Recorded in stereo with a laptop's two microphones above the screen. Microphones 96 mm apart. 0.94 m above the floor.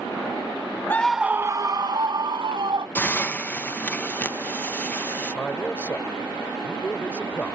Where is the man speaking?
15° left (ahead or behind).